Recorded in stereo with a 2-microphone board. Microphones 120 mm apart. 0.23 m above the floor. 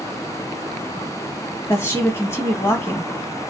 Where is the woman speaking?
20° left (ahead or behind), 1.3 m.